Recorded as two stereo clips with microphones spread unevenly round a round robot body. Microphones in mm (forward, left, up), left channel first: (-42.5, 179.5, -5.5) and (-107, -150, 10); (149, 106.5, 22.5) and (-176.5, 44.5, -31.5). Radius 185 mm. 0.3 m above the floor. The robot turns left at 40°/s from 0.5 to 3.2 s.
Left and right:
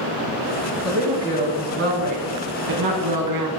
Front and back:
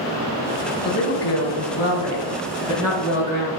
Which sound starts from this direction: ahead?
A woman speaking, at 0.8 s.